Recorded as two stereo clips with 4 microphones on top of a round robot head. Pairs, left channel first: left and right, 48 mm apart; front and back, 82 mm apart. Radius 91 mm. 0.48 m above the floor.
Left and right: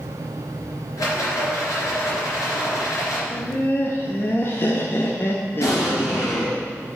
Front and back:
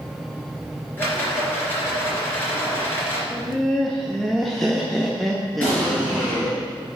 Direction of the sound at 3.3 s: 90° left.